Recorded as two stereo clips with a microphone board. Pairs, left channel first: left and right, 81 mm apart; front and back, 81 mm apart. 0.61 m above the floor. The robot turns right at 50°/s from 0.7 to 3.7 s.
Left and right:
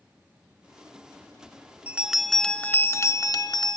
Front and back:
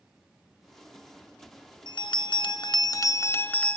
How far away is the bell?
About 0.5 m.